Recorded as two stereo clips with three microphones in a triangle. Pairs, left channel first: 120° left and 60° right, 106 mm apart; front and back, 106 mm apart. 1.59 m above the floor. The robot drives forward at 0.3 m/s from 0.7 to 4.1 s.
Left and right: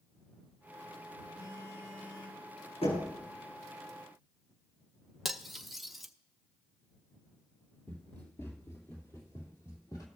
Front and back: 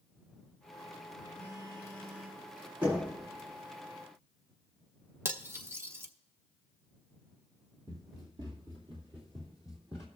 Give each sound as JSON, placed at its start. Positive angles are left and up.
{"t": 1.4, "sound": "a phone buzzing", "azimuth_deg": 135, "distance_m": 5.0}
{"t": 2.8, "sound": "knocking", "azimuth_deg": 115, "distance_m": 6.0}
{"t": 5.2, "sound": "cutlery clinking", "azimuth_deg": -150, "distance_m": 0.7}
{"t": 7.9, "sound": "running footsteps", "azimuth_deg": 170, "distance_m": 1.9}